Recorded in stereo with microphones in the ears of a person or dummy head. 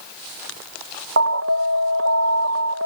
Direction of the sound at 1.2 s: 60° right (ahead or behind).